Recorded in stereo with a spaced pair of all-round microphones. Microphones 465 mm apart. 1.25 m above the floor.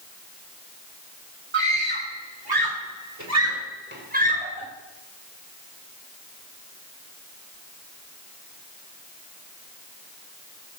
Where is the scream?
75° right (ahead or behind), 4 m; by 4.7 s 10° right (ahead or behind), 5 m.